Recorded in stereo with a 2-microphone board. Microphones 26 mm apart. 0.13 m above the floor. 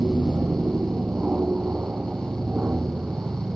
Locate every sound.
0.0 s an aircraft: 65° right (ahead or behind)